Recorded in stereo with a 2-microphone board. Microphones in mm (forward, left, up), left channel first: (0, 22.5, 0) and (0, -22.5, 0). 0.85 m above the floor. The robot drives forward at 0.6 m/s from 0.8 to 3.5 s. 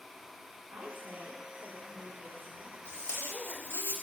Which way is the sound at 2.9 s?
65° left (ahead or behind).